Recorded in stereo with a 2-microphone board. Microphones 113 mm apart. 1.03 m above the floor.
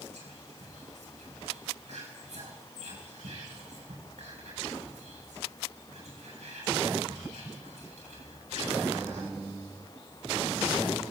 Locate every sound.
0.1 s whispering: 85° right, 7.5 m